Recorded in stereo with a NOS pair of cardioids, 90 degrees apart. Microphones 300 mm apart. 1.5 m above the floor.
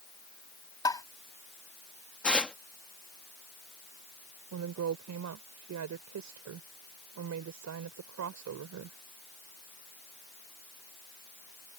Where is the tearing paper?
5° left.